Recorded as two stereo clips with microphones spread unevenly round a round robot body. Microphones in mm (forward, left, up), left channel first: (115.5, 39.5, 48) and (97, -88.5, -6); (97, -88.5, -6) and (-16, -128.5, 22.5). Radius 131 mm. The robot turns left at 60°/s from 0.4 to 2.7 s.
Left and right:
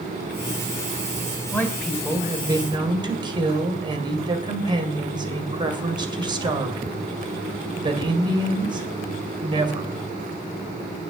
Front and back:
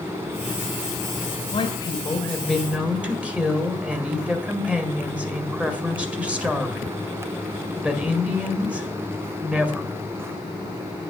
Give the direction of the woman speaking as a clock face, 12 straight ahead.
12 o'clock.